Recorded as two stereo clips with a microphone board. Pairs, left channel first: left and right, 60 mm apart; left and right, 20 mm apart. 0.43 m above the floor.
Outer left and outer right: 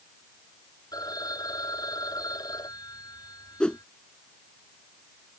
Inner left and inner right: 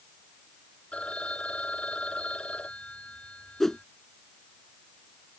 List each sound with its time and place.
0.9 s a phone ringing: 80° left
3.6 s a whoosh: 15° left (ahead or behind)